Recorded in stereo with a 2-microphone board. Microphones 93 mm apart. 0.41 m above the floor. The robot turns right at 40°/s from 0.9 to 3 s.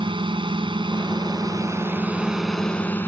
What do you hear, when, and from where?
0.0 s a drone: 70° right (ahead or behind); by 3.1 s 25° left (ahead or behind)